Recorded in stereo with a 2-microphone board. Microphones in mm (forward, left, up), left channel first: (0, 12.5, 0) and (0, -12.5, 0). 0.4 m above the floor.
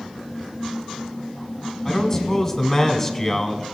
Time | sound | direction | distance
1.9 | a man speaking | 15° left (ahead or behind) | 1.1 m